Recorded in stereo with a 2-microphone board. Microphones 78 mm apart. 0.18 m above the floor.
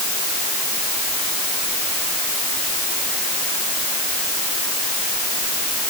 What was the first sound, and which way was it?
Only background noise.